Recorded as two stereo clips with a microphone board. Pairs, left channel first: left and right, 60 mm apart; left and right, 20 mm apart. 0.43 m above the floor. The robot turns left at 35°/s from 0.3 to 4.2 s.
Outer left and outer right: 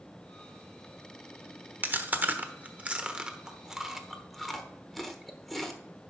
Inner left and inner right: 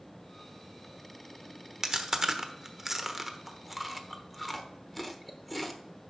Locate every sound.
1.8 s chewing: 35° right (ahead or behind), 1.0 m; by 5.8 s 5° left (ahead or behind), 1.0 m